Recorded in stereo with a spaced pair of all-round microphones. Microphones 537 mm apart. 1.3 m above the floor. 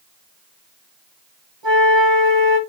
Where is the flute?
55° right (ahead or behind), 1.8 m.